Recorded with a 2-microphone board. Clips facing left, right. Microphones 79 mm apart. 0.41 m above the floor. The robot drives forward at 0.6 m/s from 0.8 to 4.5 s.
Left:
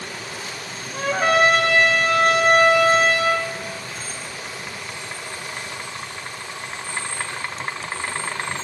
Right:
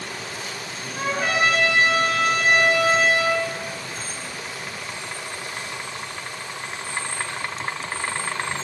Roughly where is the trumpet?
Left.